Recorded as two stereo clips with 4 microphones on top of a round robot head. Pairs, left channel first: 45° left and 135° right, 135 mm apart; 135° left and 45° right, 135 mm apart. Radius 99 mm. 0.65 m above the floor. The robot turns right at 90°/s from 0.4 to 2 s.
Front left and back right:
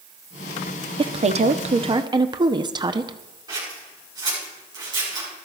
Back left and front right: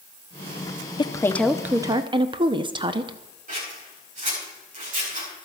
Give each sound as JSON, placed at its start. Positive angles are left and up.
{"t": 1.0, "sound": "a woman speaking", "azimuth_deg": 180, "distance_m": 1.0}
{"t": 3.5, "sound": "scissors", "azimuth_deg": -75, "distance_m": 9.0}